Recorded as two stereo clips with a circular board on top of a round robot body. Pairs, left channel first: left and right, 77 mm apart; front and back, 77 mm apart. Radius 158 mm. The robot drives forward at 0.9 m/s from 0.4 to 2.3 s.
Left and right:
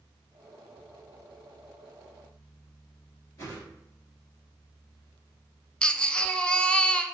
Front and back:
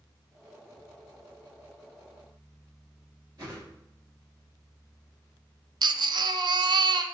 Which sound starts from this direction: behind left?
A whoosh, at 3.4 s.